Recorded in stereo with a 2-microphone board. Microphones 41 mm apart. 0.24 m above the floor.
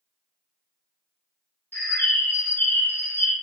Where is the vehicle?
No vehicle in this recording.